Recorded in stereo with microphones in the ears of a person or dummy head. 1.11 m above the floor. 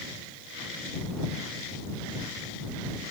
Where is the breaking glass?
I don't hear breaking glass.